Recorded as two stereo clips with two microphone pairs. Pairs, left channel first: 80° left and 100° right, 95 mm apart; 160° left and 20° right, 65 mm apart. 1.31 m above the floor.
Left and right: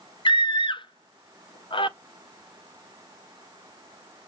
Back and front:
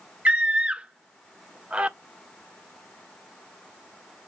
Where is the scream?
55° left, 0.6 m.